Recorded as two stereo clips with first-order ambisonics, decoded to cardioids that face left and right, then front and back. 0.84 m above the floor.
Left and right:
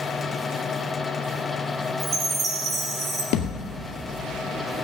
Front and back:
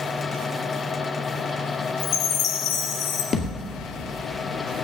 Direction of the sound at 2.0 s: 25° right.